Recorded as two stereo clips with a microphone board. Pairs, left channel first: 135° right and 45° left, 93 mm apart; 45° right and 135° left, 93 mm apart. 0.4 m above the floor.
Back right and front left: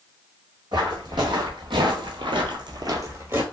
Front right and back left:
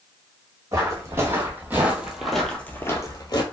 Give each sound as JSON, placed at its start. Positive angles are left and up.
{"t": 0.7, "sound": "footsteps", "azimuth_deg": 80, "distance_m": 1.4}